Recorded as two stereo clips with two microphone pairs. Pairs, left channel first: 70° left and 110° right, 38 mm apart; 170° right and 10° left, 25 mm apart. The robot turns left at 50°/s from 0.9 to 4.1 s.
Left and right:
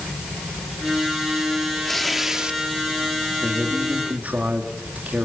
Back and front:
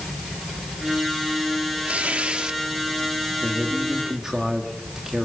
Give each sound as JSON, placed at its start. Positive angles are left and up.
{"t": 1.9, "sound": "tearing paper", "azimuth_deg": -10, "distance_m": 1.8}
{"t": 3.4, "sound": "a man speaking", "azimuth_deg": -30, "distance_m": 3.5}